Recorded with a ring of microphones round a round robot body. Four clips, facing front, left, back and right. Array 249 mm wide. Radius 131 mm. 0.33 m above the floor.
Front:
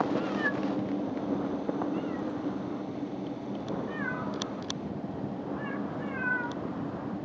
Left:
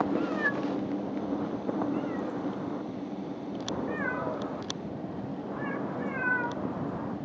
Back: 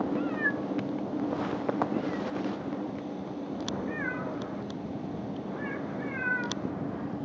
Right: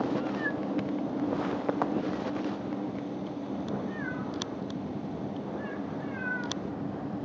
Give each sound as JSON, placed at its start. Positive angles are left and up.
{"t": 0.1, "sound": "a cat meowing", "azimuth_deg": 105}